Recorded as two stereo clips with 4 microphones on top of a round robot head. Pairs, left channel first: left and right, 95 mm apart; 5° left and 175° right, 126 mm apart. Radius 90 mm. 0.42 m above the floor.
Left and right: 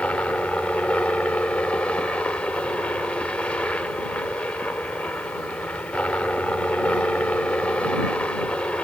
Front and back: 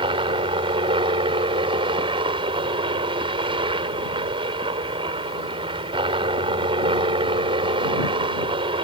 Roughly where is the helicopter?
Behind.